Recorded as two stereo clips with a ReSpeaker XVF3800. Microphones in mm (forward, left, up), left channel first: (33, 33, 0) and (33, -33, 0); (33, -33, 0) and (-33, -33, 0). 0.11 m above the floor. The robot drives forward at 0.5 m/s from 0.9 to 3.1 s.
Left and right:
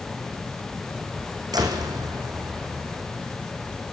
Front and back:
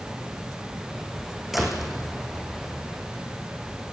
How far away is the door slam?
About 5 m.